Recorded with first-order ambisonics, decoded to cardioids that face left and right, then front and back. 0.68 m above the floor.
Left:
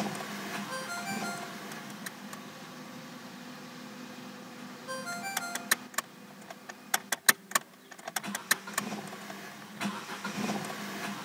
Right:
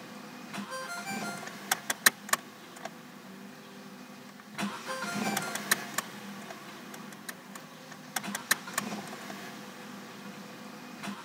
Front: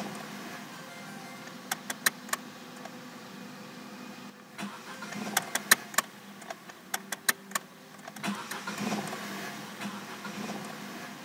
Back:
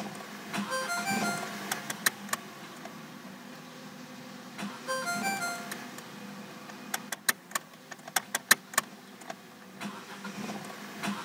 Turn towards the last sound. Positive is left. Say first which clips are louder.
# right 2 dB, back 13 dB
turn(degrees=175)